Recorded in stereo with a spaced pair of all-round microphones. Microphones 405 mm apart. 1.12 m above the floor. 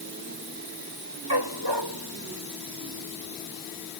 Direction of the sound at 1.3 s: 85° right.